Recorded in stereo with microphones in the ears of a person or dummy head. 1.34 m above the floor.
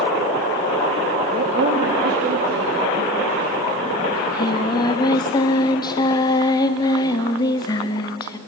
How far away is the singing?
About 1.1 m.